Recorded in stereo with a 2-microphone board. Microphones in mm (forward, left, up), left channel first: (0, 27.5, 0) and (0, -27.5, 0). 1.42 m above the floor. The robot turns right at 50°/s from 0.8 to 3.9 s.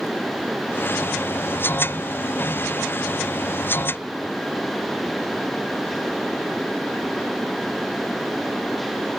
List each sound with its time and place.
Only background noise.